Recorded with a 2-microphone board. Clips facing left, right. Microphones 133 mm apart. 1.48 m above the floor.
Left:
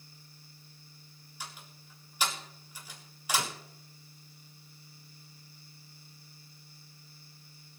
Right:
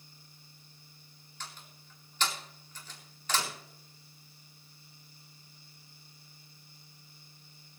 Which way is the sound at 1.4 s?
10° left (ahead or behind).